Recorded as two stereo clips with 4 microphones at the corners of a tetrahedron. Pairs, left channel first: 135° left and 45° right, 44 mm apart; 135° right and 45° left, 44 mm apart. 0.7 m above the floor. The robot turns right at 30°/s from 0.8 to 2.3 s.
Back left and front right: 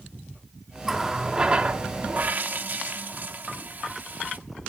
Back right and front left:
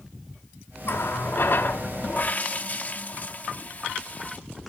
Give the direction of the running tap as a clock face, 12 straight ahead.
4 o'clock.